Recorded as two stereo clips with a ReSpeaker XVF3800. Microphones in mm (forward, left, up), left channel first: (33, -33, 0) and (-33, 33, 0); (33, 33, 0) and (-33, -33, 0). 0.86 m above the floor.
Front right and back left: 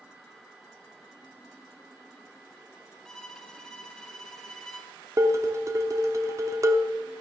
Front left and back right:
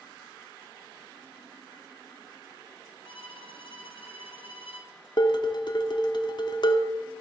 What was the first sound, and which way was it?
A violin, 40° left.